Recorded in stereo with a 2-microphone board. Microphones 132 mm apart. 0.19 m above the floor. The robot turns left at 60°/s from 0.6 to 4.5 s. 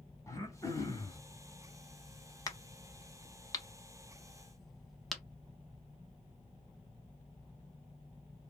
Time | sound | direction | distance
0.3 | throat clearing | 25° left (ahead or behind) | 0.9 m
2.5 | a crack | 25° left (ahead or behind) | 0.8 m